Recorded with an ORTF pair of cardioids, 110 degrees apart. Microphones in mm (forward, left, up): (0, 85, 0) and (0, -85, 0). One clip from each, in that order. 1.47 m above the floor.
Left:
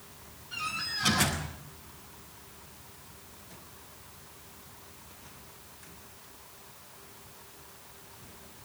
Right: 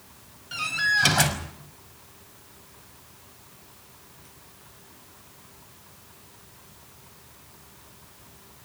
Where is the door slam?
70° right, 5.5 m.